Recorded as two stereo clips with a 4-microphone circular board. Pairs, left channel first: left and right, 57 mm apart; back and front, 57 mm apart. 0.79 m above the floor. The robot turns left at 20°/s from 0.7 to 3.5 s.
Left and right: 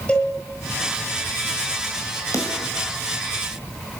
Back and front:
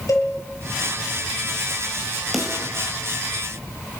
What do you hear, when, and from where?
0.1 s a cowbell: 160° left, 7.5 m
2.3 s a snare drum: 90° left, 5.5 m; by 2.7 s 80° left, 5.5 m